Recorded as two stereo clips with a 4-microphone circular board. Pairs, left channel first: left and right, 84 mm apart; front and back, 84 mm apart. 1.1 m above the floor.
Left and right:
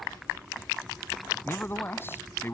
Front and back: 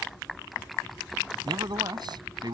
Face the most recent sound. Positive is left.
turn(degrees=150)